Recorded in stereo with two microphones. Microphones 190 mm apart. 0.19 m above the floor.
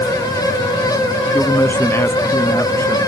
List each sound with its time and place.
1.3 s a man speaking: 10° left (ahead or behind); by 3.0 s 15° left (ahead or behind)